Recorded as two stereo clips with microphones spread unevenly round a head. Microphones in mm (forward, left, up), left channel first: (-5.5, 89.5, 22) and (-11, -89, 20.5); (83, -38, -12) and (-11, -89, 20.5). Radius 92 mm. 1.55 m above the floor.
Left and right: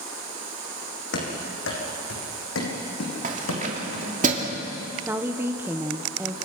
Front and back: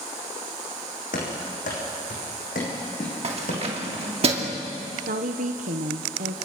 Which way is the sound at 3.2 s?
140° right.